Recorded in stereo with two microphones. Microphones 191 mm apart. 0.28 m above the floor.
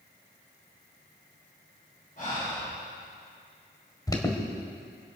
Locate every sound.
2.2 s breathing: 45° left (ahead or behind), 6.5 m
4.1 s an alarm: 20° left (ahead or behind), 1.8 m